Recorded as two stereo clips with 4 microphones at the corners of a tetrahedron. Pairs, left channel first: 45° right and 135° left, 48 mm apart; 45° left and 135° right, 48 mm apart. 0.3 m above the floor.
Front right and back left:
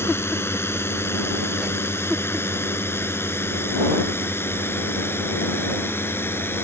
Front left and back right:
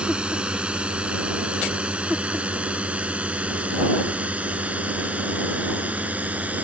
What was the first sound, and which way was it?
A drone, 70° right.